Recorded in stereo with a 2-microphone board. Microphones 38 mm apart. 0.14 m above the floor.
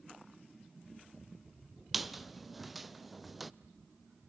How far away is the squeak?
About 0.6 m.